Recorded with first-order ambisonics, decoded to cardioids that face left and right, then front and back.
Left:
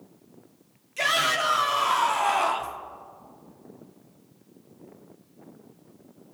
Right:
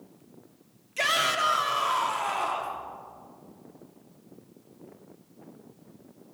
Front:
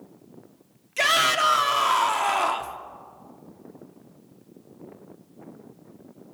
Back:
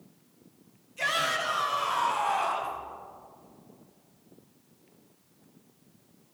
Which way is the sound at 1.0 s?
5° right.